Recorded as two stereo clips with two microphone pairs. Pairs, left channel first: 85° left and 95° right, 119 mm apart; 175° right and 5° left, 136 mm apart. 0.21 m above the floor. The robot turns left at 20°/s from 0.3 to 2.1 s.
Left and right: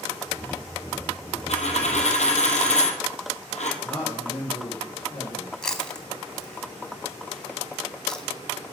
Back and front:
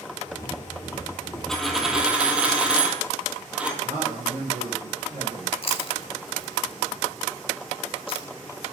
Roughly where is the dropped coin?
Left.